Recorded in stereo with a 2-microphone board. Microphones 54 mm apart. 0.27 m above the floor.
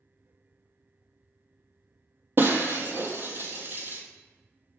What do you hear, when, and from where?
2.4 s breaking glass: 45° right (ahead or behind), 0.6 m